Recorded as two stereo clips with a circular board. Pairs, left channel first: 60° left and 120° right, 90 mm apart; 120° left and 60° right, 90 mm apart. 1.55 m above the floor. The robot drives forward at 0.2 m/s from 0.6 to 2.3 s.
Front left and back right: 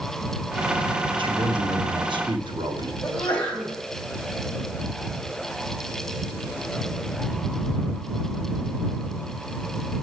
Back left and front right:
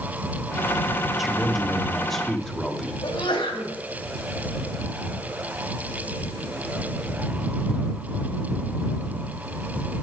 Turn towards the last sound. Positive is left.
turn(degrees=140)